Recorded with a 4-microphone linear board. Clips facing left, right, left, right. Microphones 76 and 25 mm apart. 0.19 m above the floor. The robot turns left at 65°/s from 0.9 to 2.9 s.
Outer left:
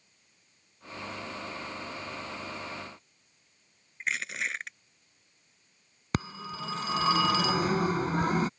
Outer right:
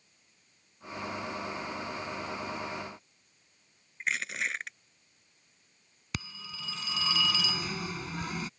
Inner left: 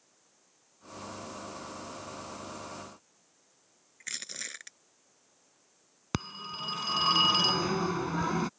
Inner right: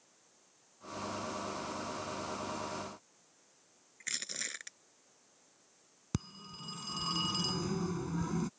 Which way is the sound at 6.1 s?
40° left (ahead or behind).